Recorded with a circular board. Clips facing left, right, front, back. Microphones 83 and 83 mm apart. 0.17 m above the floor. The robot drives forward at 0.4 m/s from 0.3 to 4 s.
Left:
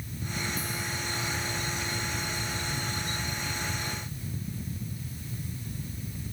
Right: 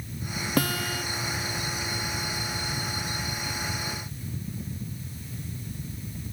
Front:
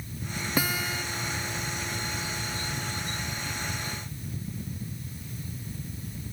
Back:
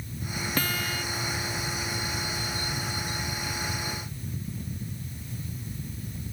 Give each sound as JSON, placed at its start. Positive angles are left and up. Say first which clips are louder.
{"t": 0.6, "sound": "a guitar", "louder": "right 8 dB, front 2 dB", "azimuth_deg": -80}